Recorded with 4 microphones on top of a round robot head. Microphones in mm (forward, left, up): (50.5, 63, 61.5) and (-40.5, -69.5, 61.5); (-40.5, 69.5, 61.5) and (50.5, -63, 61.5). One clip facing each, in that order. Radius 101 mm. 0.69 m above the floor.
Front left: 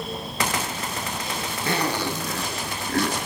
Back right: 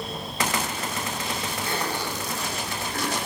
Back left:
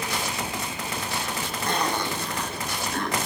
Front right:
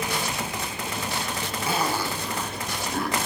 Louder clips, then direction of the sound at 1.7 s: Front left 7 dB, even; 30° left.